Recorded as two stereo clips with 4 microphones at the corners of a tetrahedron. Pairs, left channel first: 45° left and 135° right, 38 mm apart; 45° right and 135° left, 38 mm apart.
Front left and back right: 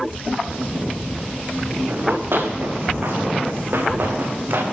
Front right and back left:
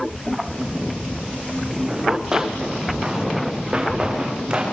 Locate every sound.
1.9 s running footsteps: 150° right, 6.5 m; by 4.6 s 160° right, 7 m